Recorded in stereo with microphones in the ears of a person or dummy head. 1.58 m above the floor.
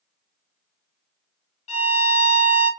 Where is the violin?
45° left (ahead or behind), 0.8 m.